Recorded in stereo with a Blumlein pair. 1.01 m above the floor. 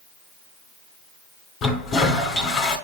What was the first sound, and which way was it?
A toilet flushing, 25° left.